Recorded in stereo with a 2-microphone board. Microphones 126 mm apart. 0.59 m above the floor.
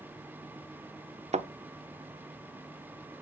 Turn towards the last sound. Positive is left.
turn(degrees=-65)  # may be behind; listen again after turning